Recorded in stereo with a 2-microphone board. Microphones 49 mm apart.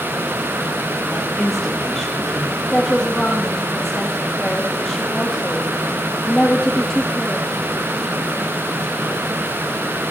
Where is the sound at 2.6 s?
10° left (ahead or behind), 5.5 m.